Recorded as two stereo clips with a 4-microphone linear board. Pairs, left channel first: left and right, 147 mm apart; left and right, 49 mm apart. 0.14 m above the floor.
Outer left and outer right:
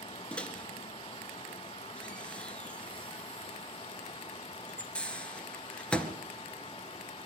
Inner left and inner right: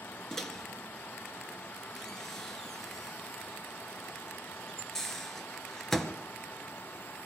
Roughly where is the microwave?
Centre.